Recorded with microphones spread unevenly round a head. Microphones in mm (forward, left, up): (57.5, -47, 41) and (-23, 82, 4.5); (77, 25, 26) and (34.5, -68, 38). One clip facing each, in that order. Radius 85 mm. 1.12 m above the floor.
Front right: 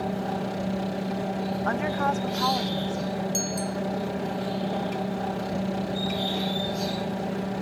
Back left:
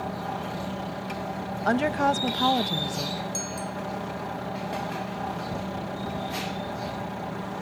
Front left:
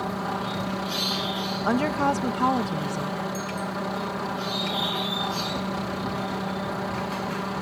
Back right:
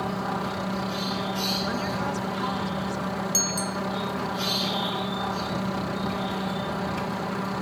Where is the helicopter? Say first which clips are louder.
Front right 3 dB, even; 20° right.